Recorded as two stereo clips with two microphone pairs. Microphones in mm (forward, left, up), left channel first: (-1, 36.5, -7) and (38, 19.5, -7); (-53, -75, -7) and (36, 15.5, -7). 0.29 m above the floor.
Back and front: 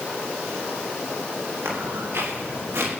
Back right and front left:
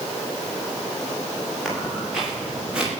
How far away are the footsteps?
About 10 m.